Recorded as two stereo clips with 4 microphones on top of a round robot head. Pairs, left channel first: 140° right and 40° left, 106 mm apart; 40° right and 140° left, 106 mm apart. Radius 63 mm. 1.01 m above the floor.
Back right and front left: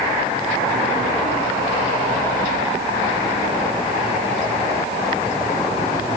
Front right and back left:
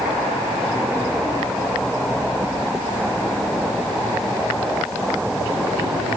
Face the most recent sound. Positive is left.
No sound to turn to.